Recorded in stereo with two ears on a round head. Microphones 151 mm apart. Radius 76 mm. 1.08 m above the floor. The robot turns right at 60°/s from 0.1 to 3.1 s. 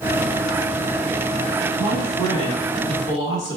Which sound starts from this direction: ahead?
A man speaking, at 1.8 s.